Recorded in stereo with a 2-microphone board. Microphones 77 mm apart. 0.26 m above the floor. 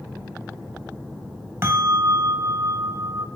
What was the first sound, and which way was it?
A bell, 35° right (ahead or behind).